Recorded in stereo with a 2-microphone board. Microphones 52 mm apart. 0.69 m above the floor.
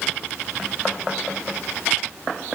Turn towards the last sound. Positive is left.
No sound to turn to.